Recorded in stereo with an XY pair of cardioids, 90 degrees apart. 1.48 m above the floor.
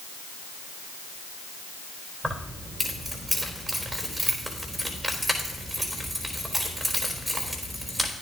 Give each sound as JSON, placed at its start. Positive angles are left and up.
{"t": 2.2, "sound": "keys jangling", "azimuth_deg": -15, "distance_m": 3.5}